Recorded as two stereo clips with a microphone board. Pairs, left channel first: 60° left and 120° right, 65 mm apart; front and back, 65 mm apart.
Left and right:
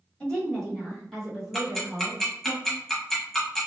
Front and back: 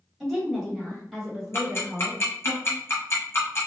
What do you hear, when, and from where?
0.2 s a woman speaking: 95° left, 1.6 m; by 2.5 s 90° right, 1.6 m
1.5 s ticking: 25° right, 0.9 m